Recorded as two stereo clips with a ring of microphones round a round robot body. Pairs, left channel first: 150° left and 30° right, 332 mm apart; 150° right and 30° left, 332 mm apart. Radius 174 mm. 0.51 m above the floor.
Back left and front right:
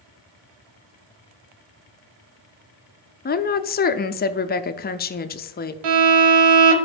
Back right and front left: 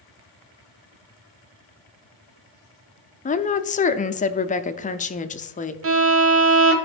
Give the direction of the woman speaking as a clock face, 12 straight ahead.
6 o'clock.